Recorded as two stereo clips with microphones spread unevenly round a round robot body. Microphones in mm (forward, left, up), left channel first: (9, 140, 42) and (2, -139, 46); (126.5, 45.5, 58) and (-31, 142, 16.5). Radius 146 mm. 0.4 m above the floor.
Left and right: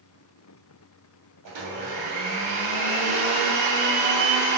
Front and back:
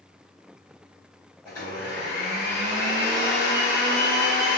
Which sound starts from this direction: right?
A blender, at 1.4 s.